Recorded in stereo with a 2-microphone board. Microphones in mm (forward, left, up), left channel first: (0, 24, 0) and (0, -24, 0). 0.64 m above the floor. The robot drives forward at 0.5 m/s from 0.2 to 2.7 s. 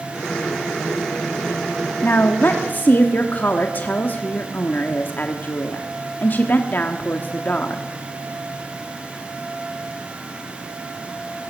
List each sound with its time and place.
2.0 s a woman speaking: 40° left (ahead or behind), 1.2 m